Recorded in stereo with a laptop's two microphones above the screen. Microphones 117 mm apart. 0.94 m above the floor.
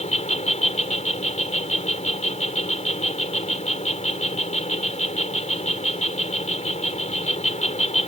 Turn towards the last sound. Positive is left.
turn(degrees=75)  # may be behind; listen again after turning